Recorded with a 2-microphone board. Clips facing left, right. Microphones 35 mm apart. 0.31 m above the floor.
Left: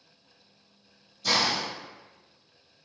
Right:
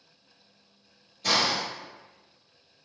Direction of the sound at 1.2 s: 50° right (ahead or behind).